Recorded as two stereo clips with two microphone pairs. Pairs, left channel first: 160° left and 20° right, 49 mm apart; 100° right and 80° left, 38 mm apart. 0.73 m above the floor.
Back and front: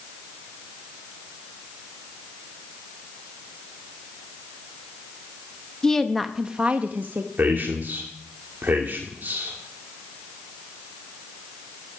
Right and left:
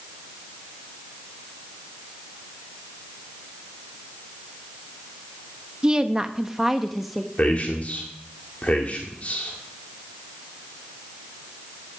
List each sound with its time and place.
5.8 s a woman speaking: 105° left, 0.9 m; by 7.3 s 10° right, 1.1 m
7.4 s a man speaking: 60° right, 2 m